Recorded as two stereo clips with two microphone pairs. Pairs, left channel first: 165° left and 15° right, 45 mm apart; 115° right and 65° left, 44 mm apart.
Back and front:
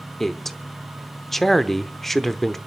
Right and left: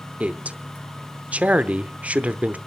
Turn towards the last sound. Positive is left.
turn(degrees=85)